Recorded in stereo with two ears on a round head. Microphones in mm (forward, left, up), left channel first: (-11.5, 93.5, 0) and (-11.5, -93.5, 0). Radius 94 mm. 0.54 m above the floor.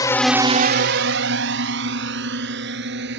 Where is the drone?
20° left (ahead or behind); by 3.2 s 55° right (ahead or behind).